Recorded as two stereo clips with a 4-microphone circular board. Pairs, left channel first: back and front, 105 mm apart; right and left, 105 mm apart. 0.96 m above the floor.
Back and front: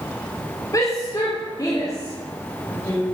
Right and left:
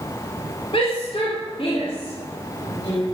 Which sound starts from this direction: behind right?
A shout, at 0.7 s.